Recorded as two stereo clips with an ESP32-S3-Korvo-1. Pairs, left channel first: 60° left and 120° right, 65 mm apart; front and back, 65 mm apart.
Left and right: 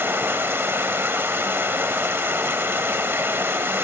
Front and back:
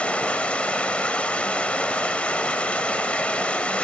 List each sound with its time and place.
0.0 s running water: 70° right, 0.7 m